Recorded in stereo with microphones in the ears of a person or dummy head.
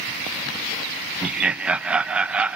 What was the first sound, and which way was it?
Laughter, 5° right (ahead or behind).